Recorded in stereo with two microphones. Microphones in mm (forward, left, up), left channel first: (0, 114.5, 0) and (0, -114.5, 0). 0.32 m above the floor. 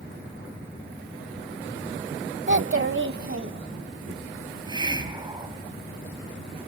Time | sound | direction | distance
2.5 | a child speaking | 55° right (ahead or behind) | 0.8 m
4.5 | a hiss | 20° right (ahead or behind) | 1.5 m